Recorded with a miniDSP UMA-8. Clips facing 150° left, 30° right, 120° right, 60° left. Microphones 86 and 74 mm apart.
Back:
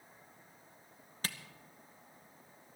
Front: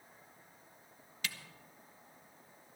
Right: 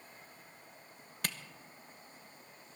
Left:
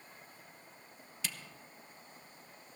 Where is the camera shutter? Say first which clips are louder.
Back 1 dB, right 4 dB; 160° right, 0.7 m.